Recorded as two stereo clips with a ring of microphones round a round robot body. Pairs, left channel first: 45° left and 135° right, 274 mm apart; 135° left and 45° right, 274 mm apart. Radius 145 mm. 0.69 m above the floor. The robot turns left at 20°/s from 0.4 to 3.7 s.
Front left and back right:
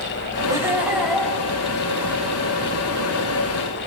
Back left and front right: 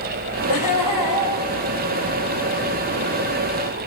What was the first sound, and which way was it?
Laughter, 145° left.